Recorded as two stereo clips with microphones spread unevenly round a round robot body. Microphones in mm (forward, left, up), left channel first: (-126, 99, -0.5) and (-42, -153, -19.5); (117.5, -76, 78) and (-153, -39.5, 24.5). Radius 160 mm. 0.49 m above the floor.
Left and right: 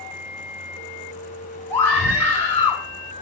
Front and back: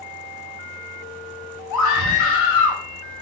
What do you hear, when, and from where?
1.7 s a scream: 25° left, 3.5 m